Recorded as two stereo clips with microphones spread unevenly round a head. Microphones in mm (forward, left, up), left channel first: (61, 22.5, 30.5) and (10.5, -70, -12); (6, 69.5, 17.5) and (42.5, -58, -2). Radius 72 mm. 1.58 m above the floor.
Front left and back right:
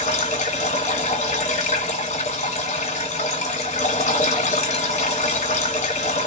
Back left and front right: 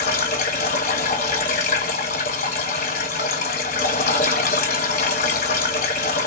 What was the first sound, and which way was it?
Running water, 95° left.